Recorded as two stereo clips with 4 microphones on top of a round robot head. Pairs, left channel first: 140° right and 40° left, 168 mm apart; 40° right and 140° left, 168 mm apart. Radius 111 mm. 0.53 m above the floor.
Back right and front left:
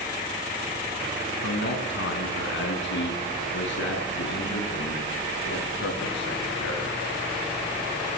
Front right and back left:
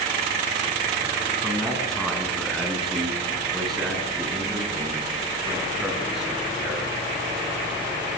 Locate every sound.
1.4 s a man speaking: 130° right, 5.5 m; by 7.0 s 135° right, 9 m